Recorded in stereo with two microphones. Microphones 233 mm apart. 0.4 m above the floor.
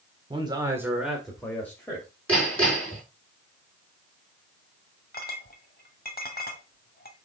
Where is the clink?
40° left (ahead or behind), 1.2 m.